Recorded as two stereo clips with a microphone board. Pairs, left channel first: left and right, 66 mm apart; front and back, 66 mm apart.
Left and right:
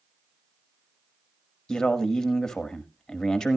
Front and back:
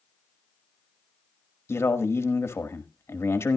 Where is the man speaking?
15° left, 1.3 m.